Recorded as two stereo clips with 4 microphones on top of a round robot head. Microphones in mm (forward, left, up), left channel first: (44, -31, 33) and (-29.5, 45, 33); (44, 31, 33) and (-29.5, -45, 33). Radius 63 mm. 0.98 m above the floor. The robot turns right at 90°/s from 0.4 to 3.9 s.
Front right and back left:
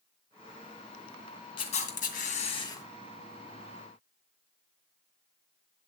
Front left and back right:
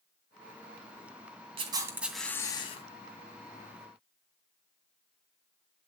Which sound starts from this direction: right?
A camera shutter, at 1.6 s.